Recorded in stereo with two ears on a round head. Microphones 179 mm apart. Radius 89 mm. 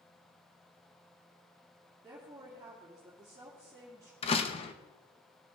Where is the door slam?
30° left (ahead or behind), 0.8 m.